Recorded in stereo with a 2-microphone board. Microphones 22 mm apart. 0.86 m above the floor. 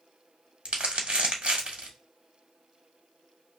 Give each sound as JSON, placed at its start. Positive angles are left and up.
{"t": 0.7, "sound": "crumpling", "side_deg": -70, "distance_m": 1.1}